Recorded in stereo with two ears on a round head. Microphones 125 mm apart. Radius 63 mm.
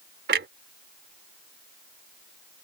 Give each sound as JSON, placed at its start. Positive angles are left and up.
{"t": 0.3, "sound": "a clunk", "side_deg": -85}